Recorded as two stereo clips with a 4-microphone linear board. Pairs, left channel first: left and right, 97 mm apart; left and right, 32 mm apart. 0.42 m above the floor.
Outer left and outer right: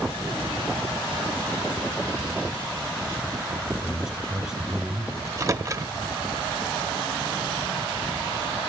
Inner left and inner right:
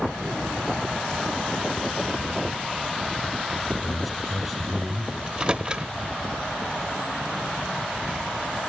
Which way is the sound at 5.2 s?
35° right (ahead or behind).